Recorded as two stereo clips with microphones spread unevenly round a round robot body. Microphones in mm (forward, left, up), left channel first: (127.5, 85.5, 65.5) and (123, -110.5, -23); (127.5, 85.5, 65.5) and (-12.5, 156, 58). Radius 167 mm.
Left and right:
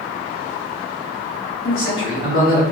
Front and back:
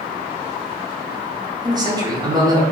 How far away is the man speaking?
About 1.1 m.